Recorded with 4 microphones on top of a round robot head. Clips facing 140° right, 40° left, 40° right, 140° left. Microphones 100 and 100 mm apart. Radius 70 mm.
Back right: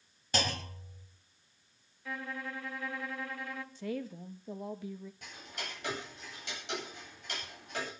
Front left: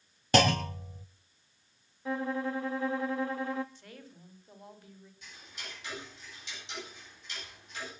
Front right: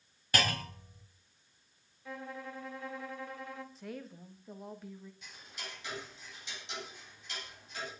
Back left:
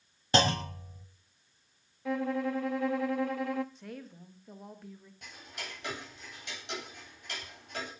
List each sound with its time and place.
0.3 s a clunk: 70° left, 1.4 m
2.0 s a violin: 110° left, 0.9 m
3.8 s a woman speaking: 130° right, 1.9 m
5.2 s ticking: straight behind, 9.5 m